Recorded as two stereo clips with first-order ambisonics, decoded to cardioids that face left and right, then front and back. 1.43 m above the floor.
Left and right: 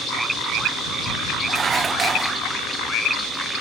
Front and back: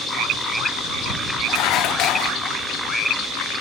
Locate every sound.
1.5 s dishes clattering: 20° right